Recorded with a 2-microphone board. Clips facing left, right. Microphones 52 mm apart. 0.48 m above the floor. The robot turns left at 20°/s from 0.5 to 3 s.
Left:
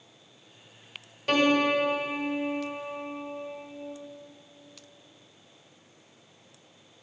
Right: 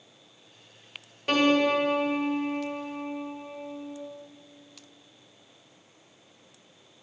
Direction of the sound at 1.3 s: 10° right (ahead or behind).